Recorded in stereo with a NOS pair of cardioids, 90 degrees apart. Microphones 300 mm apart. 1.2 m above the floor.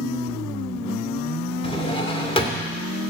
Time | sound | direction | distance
1.6 | a drawer | 15° left | 2 m